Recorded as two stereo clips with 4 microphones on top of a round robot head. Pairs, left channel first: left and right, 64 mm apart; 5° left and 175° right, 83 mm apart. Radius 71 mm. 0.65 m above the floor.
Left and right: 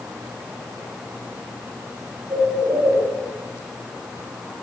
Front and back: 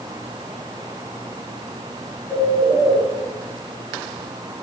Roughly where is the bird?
Right.